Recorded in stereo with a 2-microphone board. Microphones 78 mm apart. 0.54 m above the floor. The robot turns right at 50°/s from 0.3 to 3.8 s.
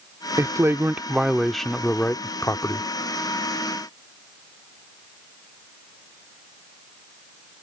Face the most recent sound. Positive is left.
turn(degrees=115)